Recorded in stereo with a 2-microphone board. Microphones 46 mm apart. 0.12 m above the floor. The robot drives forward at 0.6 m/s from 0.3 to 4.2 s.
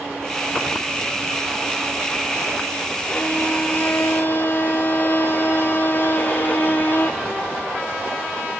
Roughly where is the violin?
Left.